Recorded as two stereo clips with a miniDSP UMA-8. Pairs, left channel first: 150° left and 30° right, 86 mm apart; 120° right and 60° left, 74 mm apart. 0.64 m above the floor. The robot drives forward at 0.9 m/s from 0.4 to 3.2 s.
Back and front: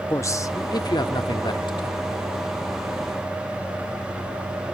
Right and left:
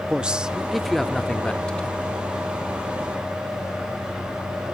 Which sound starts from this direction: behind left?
A man speaking, at 0.1 s.